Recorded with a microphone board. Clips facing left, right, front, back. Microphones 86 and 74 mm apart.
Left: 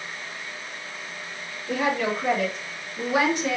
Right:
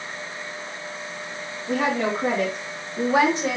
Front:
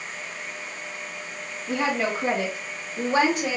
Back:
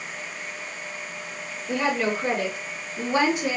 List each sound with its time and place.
1.7 s a woman speaking: 50° right, 2 m; by 3.6 s 30° right, 1.4 m